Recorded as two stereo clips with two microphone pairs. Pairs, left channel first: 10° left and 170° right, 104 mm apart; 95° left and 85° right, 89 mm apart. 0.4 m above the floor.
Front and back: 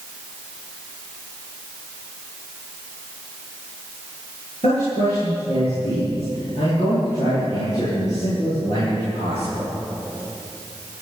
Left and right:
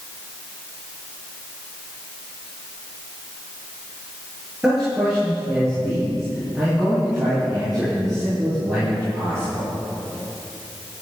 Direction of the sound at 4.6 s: 5° right.